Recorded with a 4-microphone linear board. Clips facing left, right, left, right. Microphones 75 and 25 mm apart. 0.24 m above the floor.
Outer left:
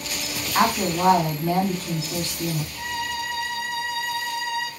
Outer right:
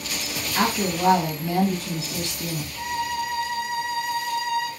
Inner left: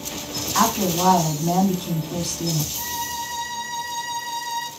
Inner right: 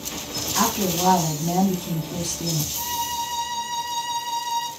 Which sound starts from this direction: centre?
A violin, at 2.7 s.